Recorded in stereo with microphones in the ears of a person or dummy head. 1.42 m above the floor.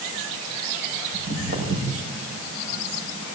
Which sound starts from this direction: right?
Footsteps, at 1.1 s.